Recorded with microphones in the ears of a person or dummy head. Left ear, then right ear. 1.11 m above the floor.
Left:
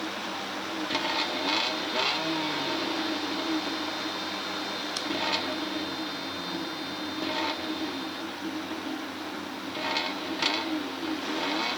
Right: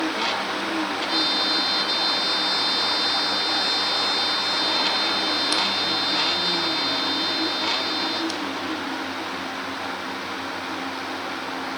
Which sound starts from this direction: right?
A trumpet, at 1.1 s.